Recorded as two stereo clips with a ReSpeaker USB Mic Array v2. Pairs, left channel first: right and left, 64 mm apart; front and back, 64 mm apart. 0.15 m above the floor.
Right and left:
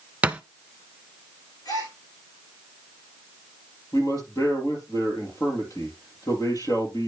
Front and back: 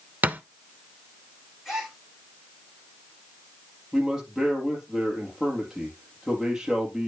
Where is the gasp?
95° right, 7 m.